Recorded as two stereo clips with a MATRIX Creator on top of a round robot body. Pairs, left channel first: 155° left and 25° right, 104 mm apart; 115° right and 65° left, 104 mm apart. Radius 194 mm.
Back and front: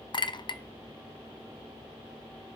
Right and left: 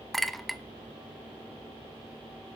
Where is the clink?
160° left, 0.7 m.